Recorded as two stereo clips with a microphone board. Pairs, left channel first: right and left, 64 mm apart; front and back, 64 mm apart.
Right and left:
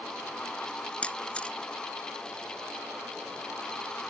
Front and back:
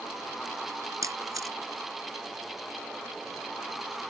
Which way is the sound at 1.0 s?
160° right.